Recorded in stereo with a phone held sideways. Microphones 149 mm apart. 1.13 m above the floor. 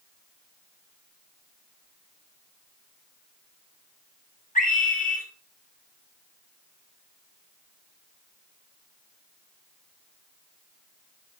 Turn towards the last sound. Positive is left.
turn(degrees=75)  # may be behind; listen again after turning